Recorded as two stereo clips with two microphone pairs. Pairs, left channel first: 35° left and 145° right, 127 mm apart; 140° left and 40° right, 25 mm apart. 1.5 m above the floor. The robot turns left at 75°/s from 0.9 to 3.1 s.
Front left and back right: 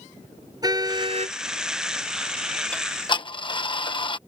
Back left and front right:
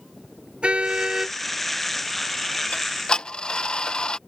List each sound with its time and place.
0.6 s a car horn: 85° right; by 1.4 s 120° right
2.7 s ticking: 115° left; by 4.2 s 85° left